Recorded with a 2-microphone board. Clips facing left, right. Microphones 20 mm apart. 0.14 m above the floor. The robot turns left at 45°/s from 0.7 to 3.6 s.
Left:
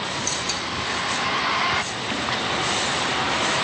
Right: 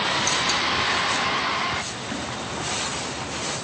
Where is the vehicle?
25° right (ahead or behind); by 3.6 s 85° left.